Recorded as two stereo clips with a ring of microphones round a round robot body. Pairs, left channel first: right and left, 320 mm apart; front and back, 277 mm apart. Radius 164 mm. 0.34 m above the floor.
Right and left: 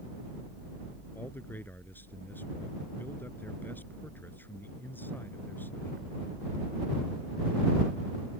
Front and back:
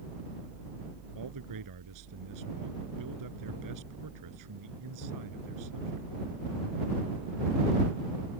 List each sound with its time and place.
1.1 s a man speaking: 175° right